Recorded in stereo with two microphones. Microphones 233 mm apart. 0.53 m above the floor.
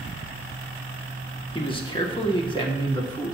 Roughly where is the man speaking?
Left.